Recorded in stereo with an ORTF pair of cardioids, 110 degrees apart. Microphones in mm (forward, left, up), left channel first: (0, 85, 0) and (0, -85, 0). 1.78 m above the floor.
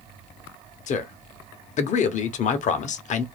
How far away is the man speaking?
About 0.7 m.